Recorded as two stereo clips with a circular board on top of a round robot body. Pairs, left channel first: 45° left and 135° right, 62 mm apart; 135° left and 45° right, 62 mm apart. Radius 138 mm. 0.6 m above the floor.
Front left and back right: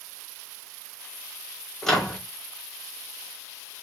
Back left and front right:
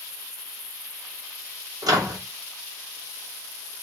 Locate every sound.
1.8 s a microwave: 35° right, 1.4 m